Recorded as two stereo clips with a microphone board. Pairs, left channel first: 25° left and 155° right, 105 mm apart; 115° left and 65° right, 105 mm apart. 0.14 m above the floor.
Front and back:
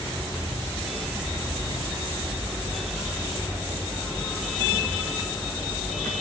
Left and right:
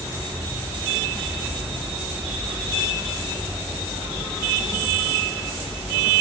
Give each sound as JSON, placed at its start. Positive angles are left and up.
{"t": 0.0, "sound": "an insect", "azimuth_deg": -15, "distance_m": 2.0}